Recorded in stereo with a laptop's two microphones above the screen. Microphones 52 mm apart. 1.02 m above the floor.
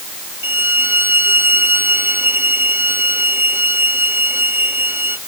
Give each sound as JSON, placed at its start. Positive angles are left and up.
{"t": 0.4, "sound": "a violin", "side_deg": -45}